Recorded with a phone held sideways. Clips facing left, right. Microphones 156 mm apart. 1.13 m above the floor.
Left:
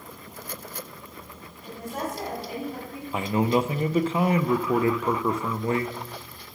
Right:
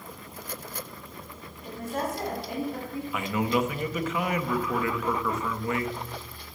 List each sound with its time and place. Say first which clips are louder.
1.6 s a woman speaking: right 1 dB; 5° left (ahead or behind), 5 m; by 3.0 s 5° right (ahead or behind), 5.5 m
3.1 s a man speaking: left 4 dB; 30° left (ahead or behind), 0.6 m